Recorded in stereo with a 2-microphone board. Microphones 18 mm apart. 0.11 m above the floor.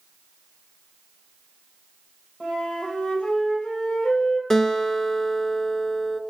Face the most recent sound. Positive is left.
turn(degrees=30)  # may be behind; listen again after turning